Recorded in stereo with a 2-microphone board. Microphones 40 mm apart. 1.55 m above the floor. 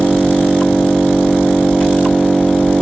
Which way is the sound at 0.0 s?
45° left (ahead or behind).